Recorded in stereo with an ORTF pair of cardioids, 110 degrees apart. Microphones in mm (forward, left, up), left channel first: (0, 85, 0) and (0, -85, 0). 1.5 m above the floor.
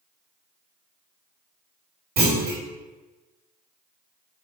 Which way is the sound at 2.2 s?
65° right.